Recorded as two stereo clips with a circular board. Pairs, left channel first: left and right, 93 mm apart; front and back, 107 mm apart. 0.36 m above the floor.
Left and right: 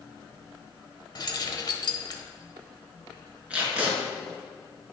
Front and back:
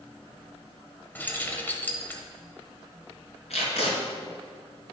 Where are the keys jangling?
70° left, 1.2 m.